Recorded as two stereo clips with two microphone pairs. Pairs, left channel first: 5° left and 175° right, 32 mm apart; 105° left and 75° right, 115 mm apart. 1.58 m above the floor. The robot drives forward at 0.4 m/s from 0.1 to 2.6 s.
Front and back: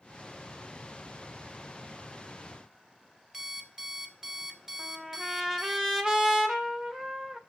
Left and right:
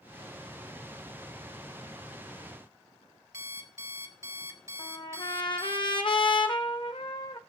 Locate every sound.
3.3 s an alarm clock: 115° right, 1.2 m
4.8 s a trumpet: 110° left, 1.0 m